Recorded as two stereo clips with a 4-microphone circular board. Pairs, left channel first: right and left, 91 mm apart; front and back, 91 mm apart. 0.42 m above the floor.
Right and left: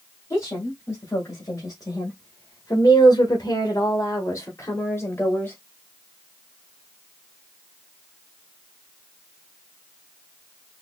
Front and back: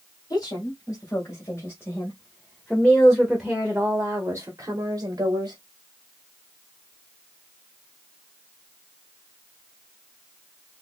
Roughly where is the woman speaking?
Ahead right.